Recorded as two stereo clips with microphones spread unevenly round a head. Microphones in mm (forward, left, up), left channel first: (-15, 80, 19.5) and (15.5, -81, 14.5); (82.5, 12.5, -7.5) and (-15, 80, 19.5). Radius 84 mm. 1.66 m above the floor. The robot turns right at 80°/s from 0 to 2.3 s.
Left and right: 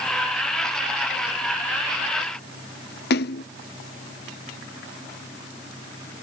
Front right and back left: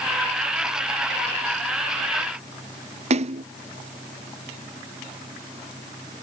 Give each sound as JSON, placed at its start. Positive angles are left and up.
{"t": 3.1, "sound": "a splash", "azimuth_deg": 130}